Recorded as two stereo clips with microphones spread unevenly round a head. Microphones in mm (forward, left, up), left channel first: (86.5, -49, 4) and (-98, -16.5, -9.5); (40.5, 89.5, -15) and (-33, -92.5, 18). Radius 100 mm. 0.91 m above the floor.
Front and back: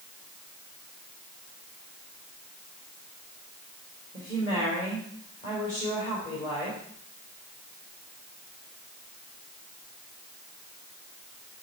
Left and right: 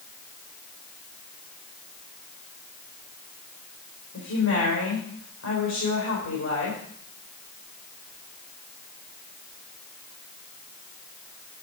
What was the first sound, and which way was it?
A woman speaking, 50° left.